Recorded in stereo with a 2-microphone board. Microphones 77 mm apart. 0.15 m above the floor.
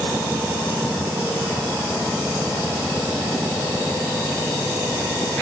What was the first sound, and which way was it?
Only background noise.